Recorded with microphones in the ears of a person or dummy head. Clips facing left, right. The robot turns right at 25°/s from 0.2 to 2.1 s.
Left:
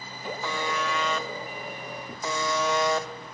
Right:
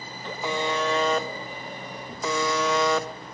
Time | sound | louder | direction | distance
0.4 | a buzzer | right 5 dB | 160° right | 0.6 m